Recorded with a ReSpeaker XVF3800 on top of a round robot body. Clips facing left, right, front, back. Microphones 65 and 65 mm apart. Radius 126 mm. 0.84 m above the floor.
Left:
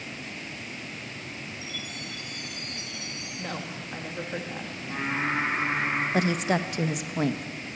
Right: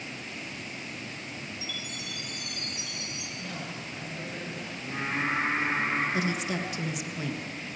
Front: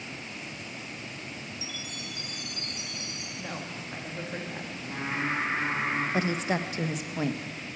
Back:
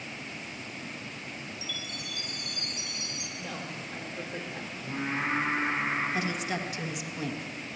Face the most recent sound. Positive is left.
turn(degrees=50)